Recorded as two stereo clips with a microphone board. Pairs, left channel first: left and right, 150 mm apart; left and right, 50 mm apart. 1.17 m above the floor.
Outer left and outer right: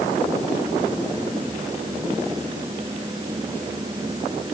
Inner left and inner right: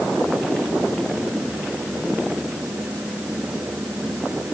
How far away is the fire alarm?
I don't hear a fire alarm.